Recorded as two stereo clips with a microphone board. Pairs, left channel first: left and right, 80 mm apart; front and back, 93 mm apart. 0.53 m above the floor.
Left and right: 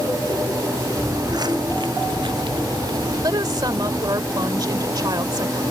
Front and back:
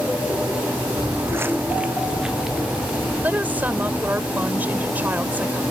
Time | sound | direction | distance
1.0 | footsteps | 135° right | ?
3.2 | a woman speaking | 110° right | ?